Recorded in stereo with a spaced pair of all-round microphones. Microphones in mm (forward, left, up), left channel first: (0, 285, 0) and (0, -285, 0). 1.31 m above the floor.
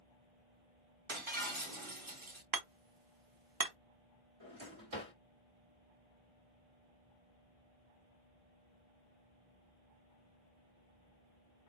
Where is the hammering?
40° right (ahead or behind), 0.6 m.